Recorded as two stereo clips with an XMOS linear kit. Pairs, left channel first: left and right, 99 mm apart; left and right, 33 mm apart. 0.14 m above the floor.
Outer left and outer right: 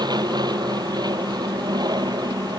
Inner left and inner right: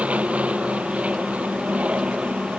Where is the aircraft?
45° right (ahead or behind).